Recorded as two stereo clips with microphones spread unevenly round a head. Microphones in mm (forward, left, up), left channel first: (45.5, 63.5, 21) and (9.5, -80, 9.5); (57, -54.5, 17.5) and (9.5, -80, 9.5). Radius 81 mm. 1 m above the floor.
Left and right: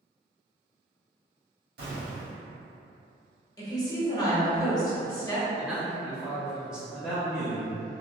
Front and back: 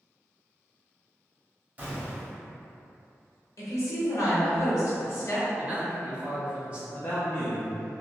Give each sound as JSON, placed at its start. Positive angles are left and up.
{"t": 1.8, "sound": "an explosion", "azimuth_deg": -95, "distance_m": 1.9}
{"t": 3.6, "sound": "a woman speaking", "azimuth_deg": 10, "distance_m": 1.2}
{"t": 5.6, "sound": "a man speaking", "azimuth_deg": -175, "distance_m": 0.8}
{"t": 6.9, "sound": "a man speaking", "azimuth_deg": -20, "distance_m": 0.8}